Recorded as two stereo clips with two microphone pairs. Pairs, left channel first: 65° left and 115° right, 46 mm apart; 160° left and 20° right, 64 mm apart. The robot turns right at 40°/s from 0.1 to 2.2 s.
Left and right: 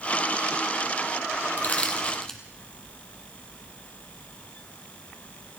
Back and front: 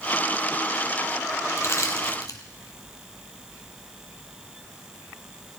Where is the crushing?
115° left, 2.5 m; by 2.4 s 140° left, 2.5 m.